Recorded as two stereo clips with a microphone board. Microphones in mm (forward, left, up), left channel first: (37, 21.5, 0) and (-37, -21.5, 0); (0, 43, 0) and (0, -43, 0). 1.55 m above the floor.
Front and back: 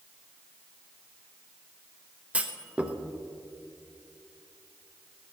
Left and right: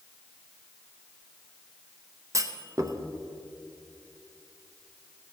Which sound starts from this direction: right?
A clunk, at 2.3 s.